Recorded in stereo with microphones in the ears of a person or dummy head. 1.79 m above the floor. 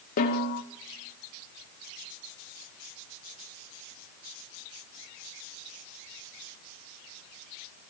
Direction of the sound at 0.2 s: 45° left (ahead or behind).